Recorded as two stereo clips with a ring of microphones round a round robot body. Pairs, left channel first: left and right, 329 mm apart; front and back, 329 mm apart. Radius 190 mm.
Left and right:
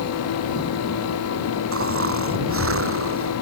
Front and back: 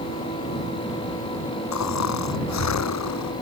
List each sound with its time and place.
1.7 s snoring: 40° right